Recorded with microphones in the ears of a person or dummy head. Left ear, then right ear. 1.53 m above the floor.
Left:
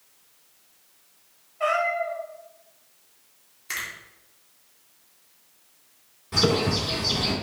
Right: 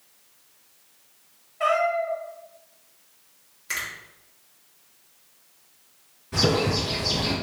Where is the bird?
30° left (ahead or behind), 1.9 m.